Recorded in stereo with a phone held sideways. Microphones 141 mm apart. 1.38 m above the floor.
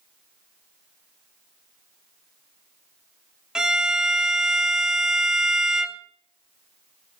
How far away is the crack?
I don't hear a crack.